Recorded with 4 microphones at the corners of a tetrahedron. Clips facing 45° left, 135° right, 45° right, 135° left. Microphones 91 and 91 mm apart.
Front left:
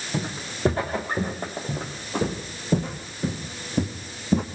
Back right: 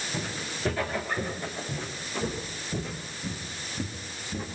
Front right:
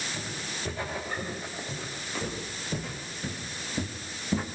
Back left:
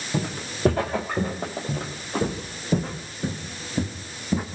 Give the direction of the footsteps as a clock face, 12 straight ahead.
8 o'clock.